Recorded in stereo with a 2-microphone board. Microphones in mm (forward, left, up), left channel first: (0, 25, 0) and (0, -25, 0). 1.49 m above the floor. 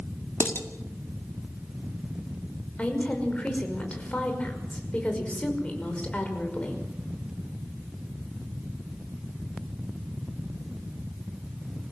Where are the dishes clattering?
50° left (ahead or behind), 2 m.